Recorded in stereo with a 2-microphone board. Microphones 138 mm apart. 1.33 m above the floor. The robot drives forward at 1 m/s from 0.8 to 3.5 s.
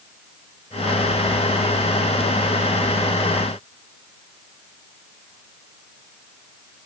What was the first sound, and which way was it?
Only background noise.